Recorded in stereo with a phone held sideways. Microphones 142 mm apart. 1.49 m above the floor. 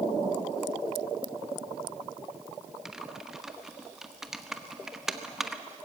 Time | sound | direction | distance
2.9 | typing on a keyboard | 5° right (ahead or behind) | 1.1 m